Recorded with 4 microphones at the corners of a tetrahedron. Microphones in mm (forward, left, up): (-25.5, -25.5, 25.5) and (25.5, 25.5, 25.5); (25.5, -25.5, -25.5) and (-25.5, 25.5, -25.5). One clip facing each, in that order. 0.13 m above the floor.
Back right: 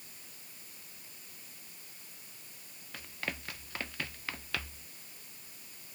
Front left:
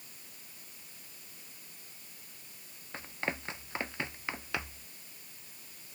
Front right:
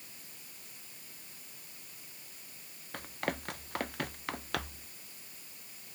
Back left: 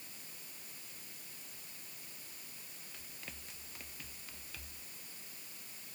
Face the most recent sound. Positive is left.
turn(degrees=-25)